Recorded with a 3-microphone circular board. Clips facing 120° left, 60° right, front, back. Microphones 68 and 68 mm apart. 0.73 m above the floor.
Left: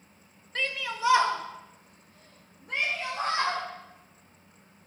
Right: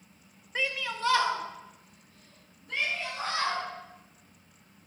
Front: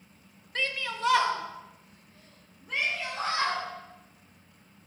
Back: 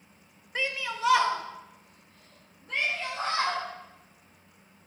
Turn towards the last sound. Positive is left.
turn(degrees=75)